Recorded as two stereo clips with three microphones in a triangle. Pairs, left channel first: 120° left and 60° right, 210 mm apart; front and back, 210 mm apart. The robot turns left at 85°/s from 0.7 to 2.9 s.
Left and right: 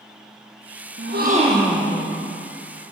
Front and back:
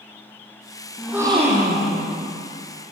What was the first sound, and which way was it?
A gasp, 85° right.